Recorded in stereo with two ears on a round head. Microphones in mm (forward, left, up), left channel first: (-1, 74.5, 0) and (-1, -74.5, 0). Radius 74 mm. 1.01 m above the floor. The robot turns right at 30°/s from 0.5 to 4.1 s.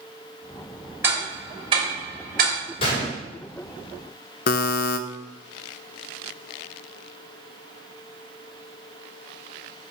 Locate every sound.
1.0 s ticking: 15° right (ahead or behind), 3 m; by 2.6 s 60° right (ahead or behind), 3 m
2.8 s a gunshot: 35° left (ahead or behind), 4 m; by 3.2 s 45° left (ahead or behind), 4 m
4.5 s a buzzer: 60° left (ahead or behind), 0.6 m